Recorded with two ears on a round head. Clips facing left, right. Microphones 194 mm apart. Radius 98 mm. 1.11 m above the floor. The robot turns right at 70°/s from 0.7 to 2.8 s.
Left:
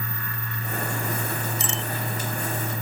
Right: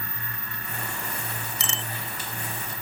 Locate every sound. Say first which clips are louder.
1.6 s a bicycle bell: left 5 dB; 60° right (ahead or behind); by 1.9 s 80° right